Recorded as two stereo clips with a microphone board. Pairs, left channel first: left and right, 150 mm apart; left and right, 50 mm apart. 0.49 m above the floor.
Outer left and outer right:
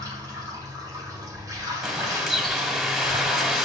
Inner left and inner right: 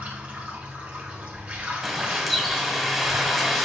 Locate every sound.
0.0 s running water: 20° right (ahead or behind), 3 m
1.8 s a bird: centre (ahead or behind), 1.4 m